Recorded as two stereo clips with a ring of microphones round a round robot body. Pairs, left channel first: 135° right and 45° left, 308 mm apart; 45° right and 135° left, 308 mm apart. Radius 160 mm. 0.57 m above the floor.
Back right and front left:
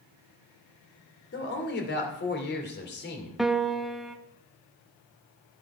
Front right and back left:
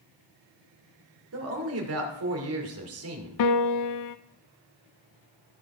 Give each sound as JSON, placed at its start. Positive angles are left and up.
{"t": 1.3, "sound": "a woman speaking", "azimuth_deg": 170, "distance_m": 2.0}
{"t": 3.4, "sound": "a piano", "azimuth_deg": -45, "distance_m": 0.6}